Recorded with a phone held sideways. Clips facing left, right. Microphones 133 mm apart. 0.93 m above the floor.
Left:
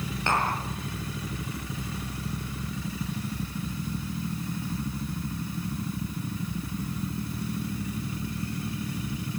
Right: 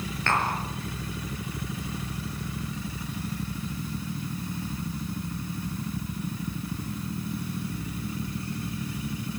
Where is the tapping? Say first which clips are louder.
Even; 15° left (ahead or behind), 8 m.